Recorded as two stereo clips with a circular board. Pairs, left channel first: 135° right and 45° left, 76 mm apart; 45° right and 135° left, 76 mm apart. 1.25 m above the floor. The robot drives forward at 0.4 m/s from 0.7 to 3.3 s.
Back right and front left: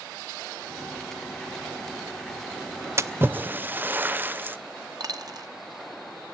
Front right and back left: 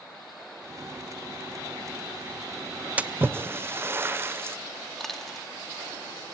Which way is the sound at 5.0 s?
40° left.